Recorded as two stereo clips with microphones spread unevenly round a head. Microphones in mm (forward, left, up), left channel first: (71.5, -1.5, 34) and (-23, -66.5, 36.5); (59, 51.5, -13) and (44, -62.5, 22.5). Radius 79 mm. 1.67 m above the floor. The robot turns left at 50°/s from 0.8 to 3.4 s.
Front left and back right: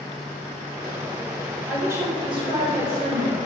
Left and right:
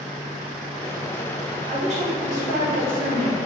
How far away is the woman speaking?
About 3 m.